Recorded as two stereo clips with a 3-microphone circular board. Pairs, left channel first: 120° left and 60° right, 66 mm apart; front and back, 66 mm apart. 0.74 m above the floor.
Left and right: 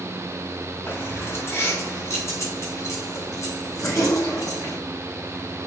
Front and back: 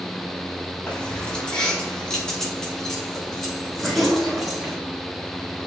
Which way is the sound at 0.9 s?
70° left.